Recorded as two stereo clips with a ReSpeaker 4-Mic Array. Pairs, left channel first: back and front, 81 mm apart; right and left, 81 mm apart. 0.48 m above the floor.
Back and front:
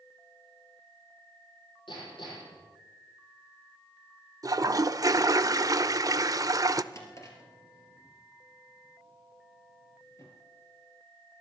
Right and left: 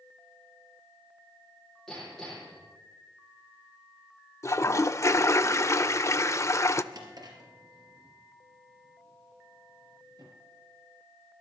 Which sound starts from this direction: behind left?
A drawer, at 6.9 s.